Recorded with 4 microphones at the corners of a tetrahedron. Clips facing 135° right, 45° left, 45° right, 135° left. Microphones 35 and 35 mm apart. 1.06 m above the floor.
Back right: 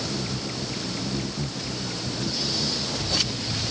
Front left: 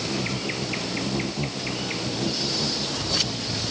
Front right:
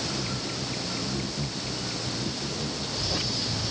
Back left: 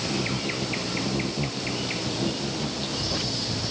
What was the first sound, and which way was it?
An insect, 90° left.